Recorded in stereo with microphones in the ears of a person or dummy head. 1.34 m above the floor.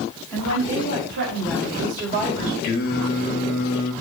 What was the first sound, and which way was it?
A woman speaking, 85° right.